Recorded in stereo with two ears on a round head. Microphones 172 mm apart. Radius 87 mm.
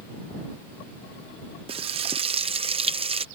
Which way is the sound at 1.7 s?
30° right (ahead or behind).